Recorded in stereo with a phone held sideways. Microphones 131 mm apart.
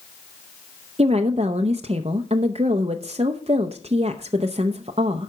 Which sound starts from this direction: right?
A woman speaking, at 1.0 s.